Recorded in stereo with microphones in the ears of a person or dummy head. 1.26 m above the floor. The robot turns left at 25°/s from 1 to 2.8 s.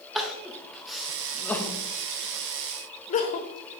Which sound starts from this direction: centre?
Crying, at 0.1 s.